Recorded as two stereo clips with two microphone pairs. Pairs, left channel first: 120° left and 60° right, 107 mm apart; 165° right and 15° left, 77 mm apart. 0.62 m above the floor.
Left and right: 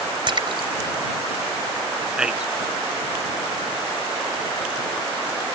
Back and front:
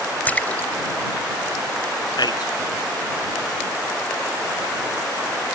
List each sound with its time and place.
0.3 s a splash: 95° right
2.2 s a man speaking: 140° right